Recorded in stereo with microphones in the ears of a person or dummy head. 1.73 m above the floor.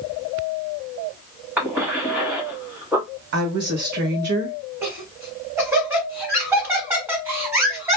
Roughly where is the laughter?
Centre.